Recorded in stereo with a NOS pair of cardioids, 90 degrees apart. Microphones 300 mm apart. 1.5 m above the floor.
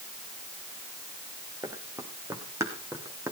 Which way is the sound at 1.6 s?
10° right.